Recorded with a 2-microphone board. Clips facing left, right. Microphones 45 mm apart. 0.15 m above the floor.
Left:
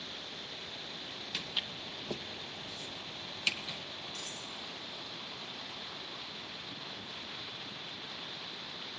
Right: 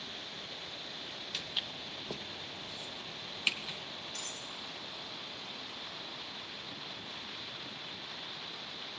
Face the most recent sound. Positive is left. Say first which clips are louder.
# even
turn(degrees=-60)  # may be behind; listen again after turning